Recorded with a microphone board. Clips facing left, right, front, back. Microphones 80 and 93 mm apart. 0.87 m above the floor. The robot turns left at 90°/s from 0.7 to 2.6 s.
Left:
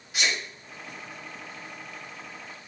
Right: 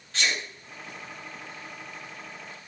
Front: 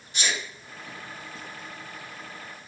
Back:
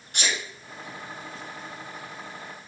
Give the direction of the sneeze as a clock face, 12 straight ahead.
6 o'clock.